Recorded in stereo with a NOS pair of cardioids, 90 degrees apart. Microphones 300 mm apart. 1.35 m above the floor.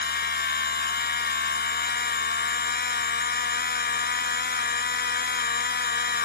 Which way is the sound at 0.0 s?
35° left.